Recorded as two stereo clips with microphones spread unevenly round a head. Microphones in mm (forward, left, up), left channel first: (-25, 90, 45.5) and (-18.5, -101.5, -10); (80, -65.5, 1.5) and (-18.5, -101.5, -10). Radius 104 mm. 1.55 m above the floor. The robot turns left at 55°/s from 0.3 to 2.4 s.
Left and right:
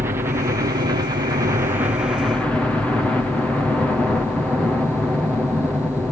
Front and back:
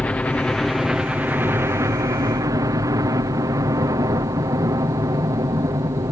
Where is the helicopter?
50° right; by 6.1 s 165° right.